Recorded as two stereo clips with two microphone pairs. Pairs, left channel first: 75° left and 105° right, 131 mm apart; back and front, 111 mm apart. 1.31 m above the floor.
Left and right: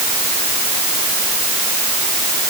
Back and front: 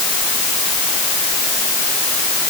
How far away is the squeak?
I don't hear a squeak.